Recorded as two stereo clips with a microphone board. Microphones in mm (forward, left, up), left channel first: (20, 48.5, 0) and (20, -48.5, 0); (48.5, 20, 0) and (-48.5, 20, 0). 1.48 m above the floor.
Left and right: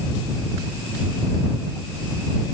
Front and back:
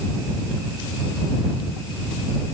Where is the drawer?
No drawer in this recording.